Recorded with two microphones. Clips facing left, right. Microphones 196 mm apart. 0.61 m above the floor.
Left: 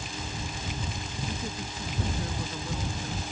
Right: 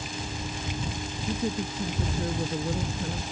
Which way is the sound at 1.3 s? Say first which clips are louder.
Right 11 dB; 30° right (ahead or behind).